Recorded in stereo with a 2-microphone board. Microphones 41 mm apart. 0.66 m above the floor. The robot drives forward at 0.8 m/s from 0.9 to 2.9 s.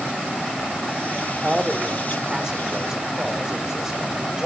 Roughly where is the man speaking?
Right.